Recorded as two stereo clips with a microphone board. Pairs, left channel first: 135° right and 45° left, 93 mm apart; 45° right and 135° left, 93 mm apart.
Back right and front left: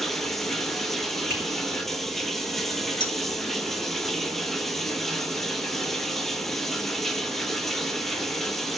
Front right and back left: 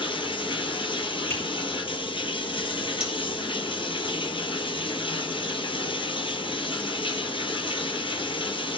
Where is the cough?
No cough in this recording.